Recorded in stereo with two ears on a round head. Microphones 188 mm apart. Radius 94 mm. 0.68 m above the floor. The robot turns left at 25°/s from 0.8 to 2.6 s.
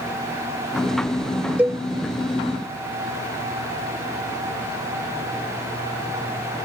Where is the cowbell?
10° right (ahead or behind); by 1.8 s 5° right (ahead or behind).